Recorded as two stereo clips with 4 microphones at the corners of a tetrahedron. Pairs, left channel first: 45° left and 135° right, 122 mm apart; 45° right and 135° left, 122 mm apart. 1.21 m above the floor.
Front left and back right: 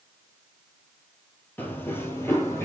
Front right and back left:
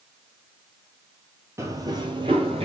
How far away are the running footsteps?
About 1.3 m.